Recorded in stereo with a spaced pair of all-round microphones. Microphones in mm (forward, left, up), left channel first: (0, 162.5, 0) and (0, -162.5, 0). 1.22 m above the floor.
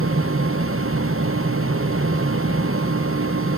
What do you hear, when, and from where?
0.0 s a fan: 40° right (ahead or behind), 0.7 m